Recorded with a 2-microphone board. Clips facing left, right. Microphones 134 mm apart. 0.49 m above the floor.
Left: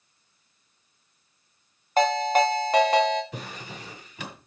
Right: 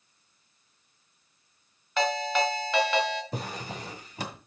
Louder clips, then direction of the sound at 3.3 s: Right 3 dB; 40° right (ahead or behind).